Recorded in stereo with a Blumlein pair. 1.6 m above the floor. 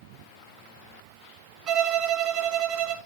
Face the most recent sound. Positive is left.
turn(degrees=-35)